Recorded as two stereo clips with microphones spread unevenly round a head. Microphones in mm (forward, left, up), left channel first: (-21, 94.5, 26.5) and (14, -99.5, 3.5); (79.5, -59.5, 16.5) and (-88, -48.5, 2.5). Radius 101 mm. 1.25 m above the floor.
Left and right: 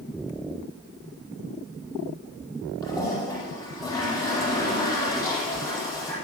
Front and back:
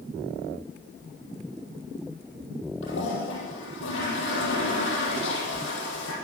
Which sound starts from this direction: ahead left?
A toilet flushing, at 2.8 s.